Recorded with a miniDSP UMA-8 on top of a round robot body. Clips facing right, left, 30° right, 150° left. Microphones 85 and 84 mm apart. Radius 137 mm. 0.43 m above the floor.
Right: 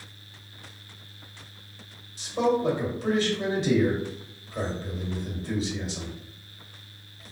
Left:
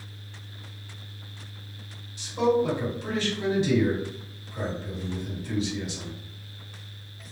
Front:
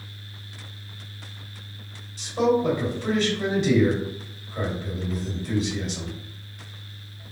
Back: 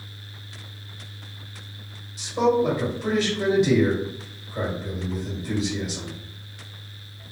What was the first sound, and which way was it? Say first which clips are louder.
A man speaking: left 1 dB, back 1 dB; 130° right.